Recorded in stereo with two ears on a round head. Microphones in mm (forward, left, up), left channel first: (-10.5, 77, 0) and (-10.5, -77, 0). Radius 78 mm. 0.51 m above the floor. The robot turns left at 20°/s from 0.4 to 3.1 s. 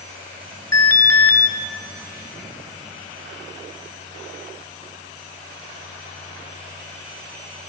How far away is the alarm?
About 0.8 m.